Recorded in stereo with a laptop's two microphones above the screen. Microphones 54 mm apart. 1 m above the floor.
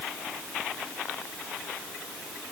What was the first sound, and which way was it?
Only background noise.